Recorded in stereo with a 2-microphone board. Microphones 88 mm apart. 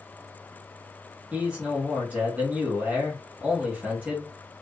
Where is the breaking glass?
No breaking glass in this recording.